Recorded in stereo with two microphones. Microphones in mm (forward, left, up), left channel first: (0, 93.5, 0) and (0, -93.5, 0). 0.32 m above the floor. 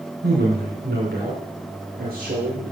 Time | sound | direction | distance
0.2 | a man speaking | 60° right (ahead or behind) | 3.5 m